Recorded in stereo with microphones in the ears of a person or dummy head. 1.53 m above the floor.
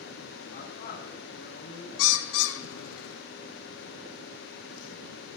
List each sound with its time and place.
0.5 s a man speaking: 45° left (ahead or behind), 7.5 m
2.0 s a bird: 70° left (ahead or behind), 0.8 m